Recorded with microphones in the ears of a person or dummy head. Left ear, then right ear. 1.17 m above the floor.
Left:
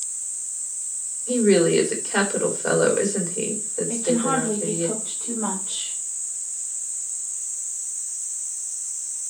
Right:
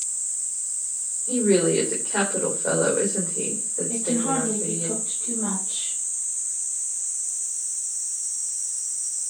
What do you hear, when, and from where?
1.3 s a woman speaking: 70° left (ahead or behind), 3 m
3.9 s a woman speaking: 45° left (ahead or behind), 4 m